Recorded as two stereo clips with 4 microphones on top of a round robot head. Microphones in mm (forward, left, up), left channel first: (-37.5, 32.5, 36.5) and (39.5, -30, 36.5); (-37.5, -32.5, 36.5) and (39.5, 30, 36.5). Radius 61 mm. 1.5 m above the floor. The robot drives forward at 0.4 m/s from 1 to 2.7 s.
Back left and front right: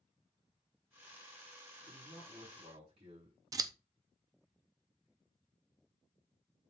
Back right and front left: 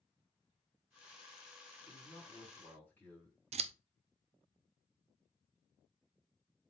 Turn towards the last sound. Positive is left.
turn(degrees=15)